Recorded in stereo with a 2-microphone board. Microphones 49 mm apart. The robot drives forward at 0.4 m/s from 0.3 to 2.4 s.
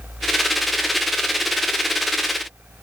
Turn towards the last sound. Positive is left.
No sound to turn to.